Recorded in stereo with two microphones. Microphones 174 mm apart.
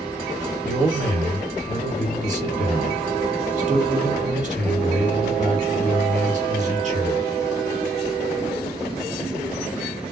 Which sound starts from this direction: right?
A man speaking, at 0.6 s.